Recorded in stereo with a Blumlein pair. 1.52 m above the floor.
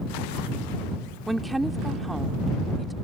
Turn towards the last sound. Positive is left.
turn(degrees=-5)